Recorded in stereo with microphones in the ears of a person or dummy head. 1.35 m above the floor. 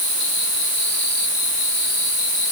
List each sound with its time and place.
Only background noise.